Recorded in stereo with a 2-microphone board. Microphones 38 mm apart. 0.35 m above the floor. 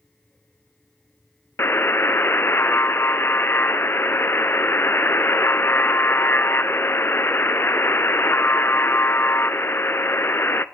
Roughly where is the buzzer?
Left.